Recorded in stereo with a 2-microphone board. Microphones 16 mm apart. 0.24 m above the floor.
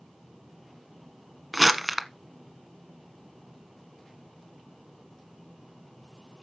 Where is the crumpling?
Centre (ahead or behind), 0.9 m.